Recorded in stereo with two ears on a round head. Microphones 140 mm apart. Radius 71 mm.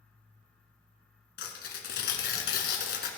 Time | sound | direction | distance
1.4 | tearing paper | 70° left (ahead or behind) | 2 m